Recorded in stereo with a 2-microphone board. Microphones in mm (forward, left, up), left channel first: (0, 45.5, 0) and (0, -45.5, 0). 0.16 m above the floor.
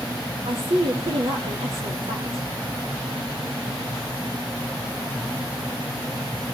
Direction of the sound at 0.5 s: 75° right (ahead or behind).